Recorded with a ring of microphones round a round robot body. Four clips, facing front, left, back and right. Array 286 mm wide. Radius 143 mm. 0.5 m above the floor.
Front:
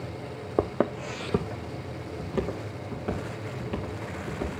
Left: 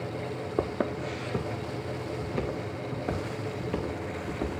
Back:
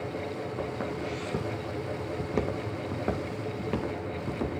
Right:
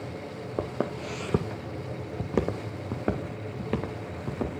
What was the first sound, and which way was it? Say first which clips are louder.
Footsteps: left 1 dB, front 10 dB; 5° left.